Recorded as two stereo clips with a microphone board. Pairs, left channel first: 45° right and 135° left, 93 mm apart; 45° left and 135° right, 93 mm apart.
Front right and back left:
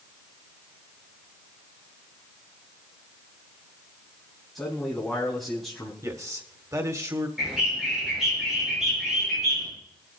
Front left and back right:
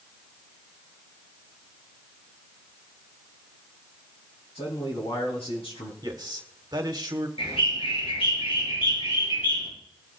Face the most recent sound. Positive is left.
turn(degrees=50)